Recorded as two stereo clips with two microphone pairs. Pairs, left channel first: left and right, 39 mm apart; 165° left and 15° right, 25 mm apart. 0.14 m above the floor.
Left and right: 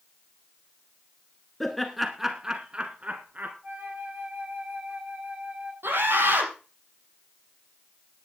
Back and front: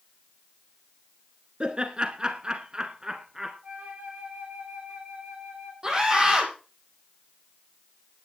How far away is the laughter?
About 1.6 m.